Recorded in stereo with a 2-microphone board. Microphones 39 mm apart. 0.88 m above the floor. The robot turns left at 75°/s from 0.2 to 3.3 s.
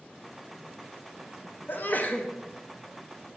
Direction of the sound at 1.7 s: 85° left.